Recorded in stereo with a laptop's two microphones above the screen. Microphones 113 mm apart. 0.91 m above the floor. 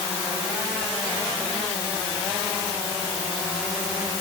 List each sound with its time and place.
Only background noise.